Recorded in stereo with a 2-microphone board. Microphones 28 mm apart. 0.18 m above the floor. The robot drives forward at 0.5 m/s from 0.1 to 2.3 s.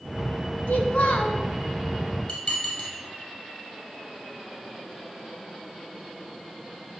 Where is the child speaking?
55° left (ahead or behind), 1.3 m.